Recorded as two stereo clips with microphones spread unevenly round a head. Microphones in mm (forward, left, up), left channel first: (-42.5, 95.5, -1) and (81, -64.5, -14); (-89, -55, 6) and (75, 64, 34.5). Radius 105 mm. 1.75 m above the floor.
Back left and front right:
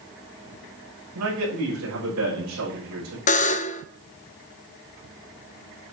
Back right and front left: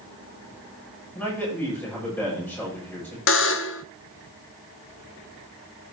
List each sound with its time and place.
1.1 s a man speaking: 60° right, 6 m
3.3 s a buzzer: 175° right, 0.5 m